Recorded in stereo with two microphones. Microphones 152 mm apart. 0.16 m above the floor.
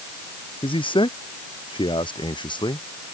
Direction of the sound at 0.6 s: 35° left (ahead or behind).